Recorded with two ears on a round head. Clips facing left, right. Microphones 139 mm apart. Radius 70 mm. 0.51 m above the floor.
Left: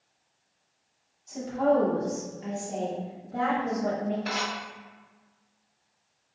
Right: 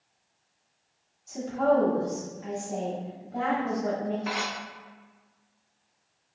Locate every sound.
1.3 s a woman speaking: 5° right (ahead or behind), 1.0 m; by 4.2 s 55° left (ahead or behind), 1.8 m
4.3 s dishes clattering: 45° left (ahead or behind), 1.6 m